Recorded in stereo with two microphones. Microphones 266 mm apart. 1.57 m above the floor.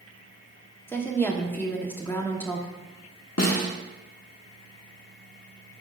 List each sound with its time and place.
0.9 s a woman speaking: 10° left (ahead or behind), 1.2 m
3.4 s a snare drum: 70° left (ahead or behind), 1.1 m